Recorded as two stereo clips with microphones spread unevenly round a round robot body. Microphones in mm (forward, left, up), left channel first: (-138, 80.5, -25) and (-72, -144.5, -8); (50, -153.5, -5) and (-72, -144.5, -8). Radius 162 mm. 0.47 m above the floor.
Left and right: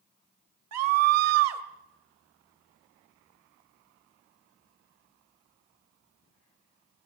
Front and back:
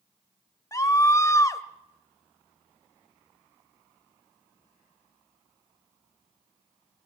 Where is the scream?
65° right, 1.6 m.